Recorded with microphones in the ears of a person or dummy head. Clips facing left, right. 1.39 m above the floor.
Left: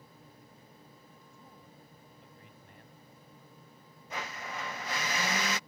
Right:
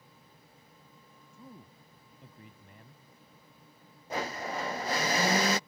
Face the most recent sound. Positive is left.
turn(degrees=-35)  # may be behind; listen again after turning